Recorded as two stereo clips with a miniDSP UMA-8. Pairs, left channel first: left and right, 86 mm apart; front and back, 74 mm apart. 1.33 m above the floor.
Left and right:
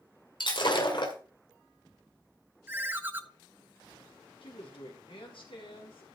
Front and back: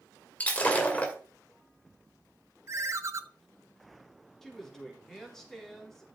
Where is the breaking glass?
70° left, 2.5 m.